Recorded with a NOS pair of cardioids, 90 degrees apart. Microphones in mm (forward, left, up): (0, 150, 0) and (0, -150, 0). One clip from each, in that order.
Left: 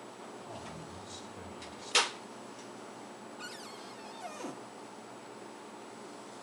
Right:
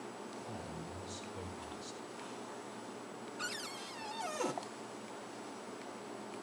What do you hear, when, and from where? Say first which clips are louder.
0.4 s a man speaking: left 1 dB; 35° left, 5.5 m
3.4 s a cupboard door: right 5 dB; 20° right, 0.5 m